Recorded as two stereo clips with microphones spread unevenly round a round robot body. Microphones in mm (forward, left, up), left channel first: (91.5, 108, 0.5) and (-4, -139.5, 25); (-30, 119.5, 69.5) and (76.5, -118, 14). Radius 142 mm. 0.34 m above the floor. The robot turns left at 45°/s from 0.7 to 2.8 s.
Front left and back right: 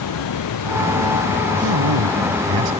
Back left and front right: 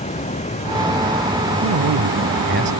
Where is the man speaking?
75° right; by 2.7 s 125° right.